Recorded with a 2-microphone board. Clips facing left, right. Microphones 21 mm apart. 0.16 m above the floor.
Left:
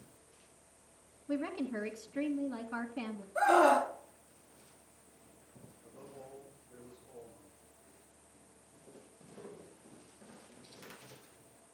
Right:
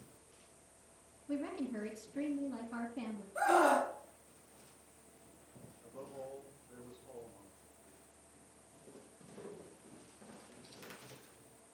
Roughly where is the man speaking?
Right.